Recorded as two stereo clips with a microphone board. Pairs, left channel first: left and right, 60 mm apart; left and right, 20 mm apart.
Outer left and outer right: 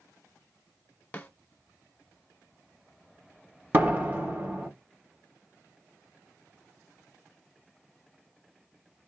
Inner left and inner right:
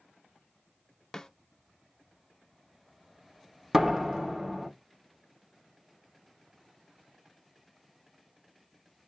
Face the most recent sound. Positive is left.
turn(degrees=-35)  # may be behind; listen again after turning